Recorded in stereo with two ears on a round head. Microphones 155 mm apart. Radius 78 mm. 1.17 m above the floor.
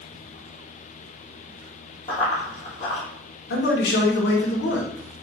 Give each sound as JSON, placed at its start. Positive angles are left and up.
{"t": 2.1, "sound": "running footsteps", "side_deg": 30, "distance_m": 1.5}
{"t": 3.5, "sound": "a man speaking", "side_deg": 70, "distance_m": 1.0}